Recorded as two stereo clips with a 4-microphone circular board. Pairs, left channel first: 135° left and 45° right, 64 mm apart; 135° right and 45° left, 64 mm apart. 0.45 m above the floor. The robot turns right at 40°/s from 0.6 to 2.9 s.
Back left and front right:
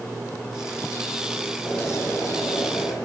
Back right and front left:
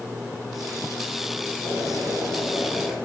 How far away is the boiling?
About 9 m.